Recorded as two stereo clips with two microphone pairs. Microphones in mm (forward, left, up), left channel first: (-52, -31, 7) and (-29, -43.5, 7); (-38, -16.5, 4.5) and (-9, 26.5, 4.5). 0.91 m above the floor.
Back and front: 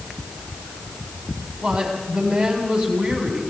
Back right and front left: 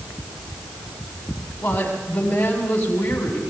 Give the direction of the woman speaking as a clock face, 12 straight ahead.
2 o'clock.